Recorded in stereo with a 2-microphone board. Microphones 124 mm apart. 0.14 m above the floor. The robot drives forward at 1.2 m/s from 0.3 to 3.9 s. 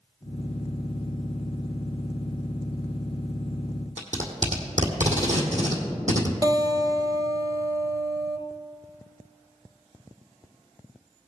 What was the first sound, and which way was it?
Tape being pulled, 75° right (ahead or behind).